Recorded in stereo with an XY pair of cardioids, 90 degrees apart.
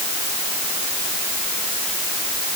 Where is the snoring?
No snoring in this recording.